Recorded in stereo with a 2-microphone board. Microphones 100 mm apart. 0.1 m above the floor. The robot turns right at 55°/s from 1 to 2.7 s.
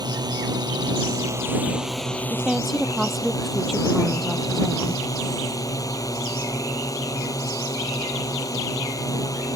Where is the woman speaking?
20° right (ahead or behind); by 5.0 s centre (ahead or behind).